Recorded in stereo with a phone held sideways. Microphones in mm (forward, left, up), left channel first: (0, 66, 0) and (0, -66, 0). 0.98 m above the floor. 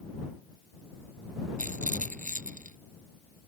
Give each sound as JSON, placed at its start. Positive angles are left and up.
{"t": 1.6, "sound": "a rattle", "side_deg": -85}